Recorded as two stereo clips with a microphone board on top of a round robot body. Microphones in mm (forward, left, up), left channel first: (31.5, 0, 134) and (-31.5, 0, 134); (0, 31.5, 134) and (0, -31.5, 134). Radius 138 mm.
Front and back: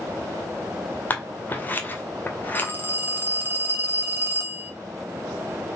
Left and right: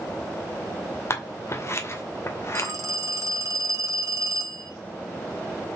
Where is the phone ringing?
120° right, 2.5 m.